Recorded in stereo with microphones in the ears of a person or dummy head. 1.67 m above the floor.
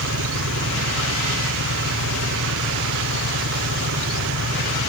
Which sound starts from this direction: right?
An engine running, at 0.0 s.